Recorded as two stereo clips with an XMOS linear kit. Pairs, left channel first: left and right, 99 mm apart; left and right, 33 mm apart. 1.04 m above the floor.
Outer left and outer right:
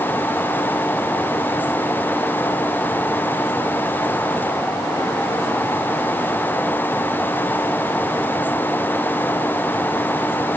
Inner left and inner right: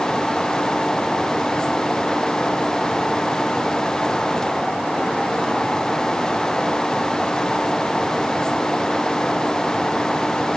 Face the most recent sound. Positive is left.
No sound to turn to.